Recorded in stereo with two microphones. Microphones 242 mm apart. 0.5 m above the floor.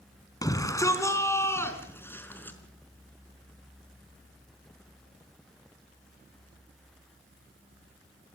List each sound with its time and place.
0.4 s a shout: 15° left (ahead or behind), 4 m; by 2.6 s 10° left (ahead or behind), 5 m